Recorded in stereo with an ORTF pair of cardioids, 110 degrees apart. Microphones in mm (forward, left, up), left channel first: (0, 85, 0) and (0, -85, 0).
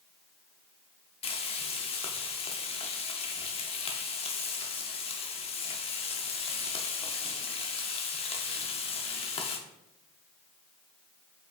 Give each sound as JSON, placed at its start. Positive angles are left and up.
{"t": 1.2, "sound": "frying", "azimuth_deg": 35, "distance_m": 0.8}